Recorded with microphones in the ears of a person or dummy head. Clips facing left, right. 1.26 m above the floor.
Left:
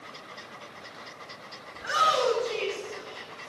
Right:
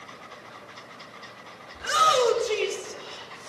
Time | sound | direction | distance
1.7 | a shout | 45° right (ahead or behind) | 3.5 m